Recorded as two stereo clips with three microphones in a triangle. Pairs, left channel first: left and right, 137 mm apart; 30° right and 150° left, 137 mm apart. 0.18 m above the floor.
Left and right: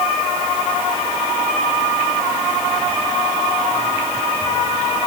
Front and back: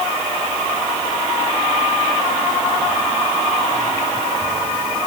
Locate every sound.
Only background noise.